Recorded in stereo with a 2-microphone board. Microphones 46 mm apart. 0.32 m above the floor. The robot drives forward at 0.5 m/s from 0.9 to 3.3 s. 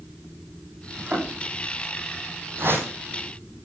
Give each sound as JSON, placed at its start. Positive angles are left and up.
{"t": 1.0, "sound": "a thud", "side_deg": -30, "distance_m": 8.5}
{"t": 2.6, "sound": "a whoosh", "side_deg": -55, "distance_m": 4.5}